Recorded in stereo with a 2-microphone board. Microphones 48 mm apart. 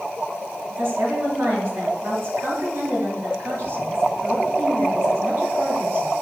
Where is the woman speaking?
55° right (ahead or behind), 2.5 m.